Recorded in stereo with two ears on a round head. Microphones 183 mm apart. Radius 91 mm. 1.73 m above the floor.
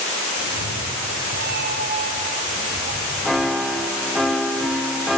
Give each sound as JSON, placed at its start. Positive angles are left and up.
{"t": 0.4, "sound": "a cat meowing", "side_deg": -65, "distance_m": 3.0}
{"t": 3.2, "sound": "a piano", "side_deg": 0, "distance_m": 1.0}